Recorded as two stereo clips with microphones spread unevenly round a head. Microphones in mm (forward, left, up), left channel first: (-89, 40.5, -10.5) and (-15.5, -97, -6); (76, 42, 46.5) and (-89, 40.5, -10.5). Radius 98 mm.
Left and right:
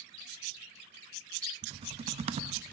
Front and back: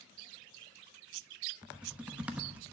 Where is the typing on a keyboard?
75° right, 0.7 m.